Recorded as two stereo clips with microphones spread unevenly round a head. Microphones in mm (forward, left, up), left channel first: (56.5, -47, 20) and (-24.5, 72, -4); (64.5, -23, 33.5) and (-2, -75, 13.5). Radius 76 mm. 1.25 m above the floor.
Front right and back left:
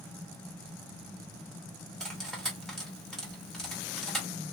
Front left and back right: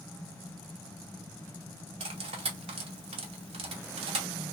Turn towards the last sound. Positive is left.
turn(degrees=-140)